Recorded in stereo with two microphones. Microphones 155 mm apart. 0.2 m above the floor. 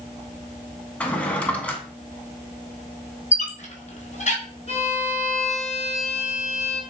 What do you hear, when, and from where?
1.0 s a drawer: 10° left (ahead or behind), 0.5 m
3.3 s a squeak: 50° left (ahead or behind), 0.7 m
4.7 s a violin: 45° left (ahead or behind), 0.6 m